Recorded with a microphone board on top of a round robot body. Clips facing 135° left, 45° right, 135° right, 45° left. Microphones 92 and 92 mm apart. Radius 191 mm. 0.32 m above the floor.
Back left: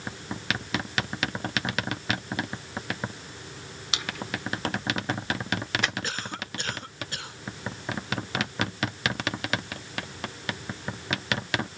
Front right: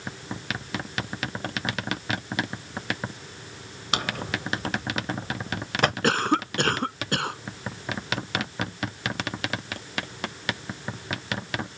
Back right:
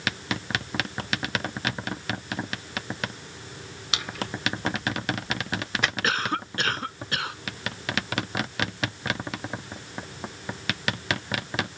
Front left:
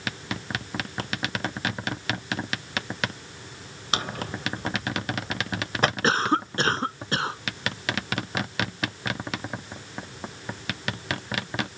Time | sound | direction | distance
3.9 | a drawer | 5° right | ?
6.0 | a cough | 15° right | ?